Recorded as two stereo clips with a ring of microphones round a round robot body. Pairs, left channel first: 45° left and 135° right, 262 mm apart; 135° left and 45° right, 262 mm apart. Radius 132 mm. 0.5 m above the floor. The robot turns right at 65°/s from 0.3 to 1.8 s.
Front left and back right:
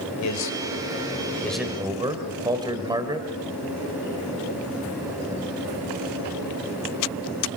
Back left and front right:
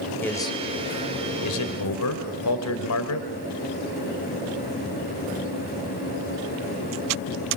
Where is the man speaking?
55° left, 2.5 m; by 3.3 s 150° left, 2.5 m.